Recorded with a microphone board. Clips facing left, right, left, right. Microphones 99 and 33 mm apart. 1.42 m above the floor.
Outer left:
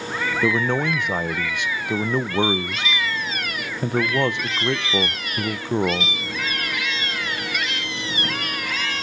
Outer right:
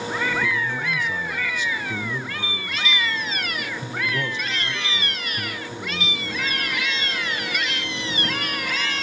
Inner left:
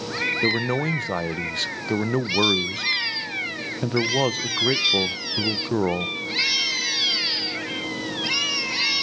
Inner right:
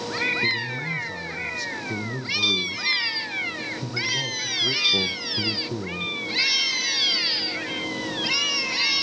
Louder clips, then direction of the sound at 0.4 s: Outer left 5 dB, inner left 3 dB; 65° left (ahead or behind).